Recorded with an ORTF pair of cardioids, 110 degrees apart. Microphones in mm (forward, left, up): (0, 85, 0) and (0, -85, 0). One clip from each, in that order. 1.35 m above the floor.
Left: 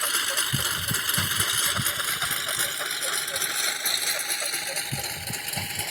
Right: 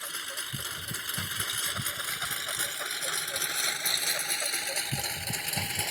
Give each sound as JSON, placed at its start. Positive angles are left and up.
{"t": 0.0, "sound": "a lawn mower", "azimuth_deg": 60}